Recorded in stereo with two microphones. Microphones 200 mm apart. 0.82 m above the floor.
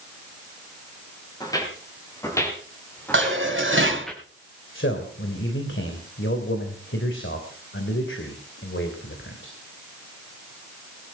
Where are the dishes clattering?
75° right (ahead or behind), 3.5 m.